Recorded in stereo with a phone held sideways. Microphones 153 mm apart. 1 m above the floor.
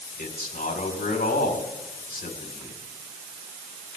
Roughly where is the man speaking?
Left.